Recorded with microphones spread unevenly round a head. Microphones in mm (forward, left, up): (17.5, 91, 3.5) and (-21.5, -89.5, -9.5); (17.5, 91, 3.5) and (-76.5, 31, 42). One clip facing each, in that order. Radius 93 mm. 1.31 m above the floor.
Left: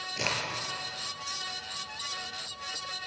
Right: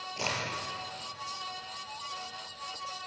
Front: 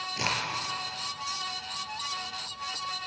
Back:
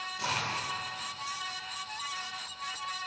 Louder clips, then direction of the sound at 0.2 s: Left 1 dB, front 2 dB; 10° left.